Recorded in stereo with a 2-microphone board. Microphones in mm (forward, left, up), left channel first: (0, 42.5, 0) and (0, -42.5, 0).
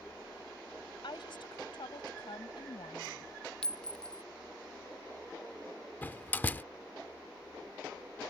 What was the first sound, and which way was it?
A woman speaking, 70° left (ahead or behind).